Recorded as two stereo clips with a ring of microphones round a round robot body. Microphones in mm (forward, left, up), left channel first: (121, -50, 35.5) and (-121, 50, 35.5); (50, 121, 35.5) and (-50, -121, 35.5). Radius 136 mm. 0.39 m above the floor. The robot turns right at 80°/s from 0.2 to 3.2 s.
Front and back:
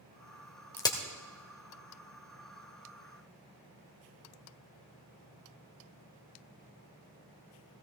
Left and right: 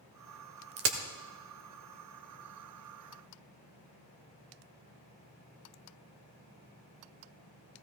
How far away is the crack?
About 1.3 m.